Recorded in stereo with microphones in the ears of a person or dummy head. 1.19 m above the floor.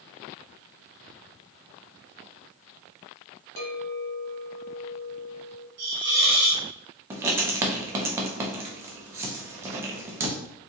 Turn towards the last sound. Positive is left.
turn(degrees=-20)  # may be behind; listen again after turning